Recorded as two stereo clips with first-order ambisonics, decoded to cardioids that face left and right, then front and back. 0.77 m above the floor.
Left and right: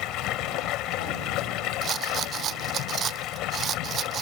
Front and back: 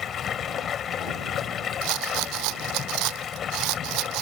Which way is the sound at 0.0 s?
60° left.